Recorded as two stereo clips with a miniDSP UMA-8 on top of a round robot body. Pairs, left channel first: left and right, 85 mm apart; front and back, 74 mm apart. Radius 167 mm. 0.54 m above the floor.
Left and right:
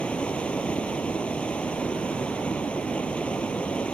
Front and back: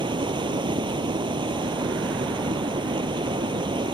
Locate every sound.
0.0 s running water: 165° left